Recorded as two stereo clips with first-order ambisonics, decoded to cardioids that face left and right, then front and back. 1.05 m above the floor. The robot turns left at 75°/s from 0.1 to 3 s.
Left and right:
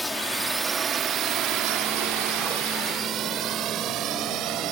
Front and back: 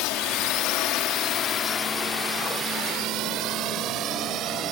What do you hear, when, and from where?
0.0 s a drone: straight ahead; by 4.7 s 130° right